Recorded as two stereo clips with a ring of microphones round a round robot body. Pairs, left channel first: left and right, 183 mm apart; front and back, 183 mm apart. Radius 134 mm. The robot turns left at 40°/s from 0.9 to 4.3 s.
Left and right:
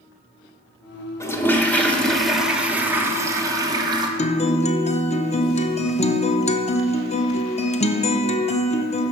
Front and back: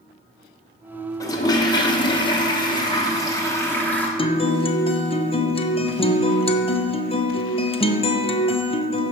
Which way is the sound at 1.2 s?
40° left.